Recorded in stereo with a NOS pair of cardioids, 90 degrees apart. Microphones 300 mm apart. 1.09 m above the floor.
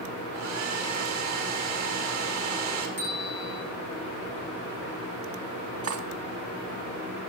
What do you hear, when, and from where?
0.3 s a hair dryer: 65° right, 3 m
3.0 s a bell: 40° right, 6.5 m
5.8 s cutlery clinking: 50° right, 1.3 m